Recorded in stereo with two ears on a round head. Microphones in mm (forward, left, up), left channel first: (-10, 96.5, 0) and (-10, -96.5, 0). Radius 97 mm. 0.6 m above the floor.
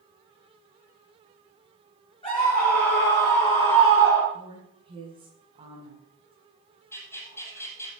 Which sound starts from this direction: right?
A woman speaking, at 4.3 s.